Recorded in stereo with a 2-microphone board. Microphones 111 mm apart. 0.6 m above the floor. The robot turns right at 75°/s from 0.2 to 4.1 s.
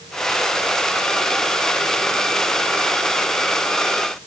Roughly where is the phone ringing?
I don't hear a phone ringing.